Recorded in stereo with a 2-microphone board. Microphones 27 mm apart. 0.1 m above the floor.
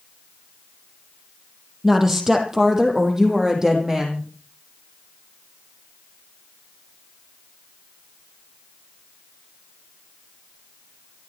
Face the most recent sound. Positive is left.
turn(degrees=-25)  # may be behind; listen again after turning